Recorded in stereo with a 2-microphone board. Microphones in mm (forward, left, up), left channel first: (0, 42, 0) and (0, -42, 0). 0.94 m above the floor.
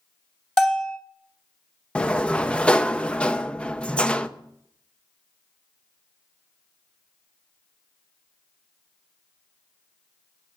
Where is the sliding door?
15° left (ahead or behind), 0.6 m.